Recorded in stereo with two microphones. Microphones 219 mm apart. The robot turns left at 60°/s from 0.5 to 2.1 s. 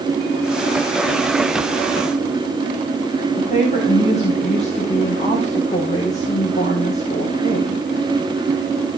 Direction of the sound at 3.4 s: 30° left (ahead or behind).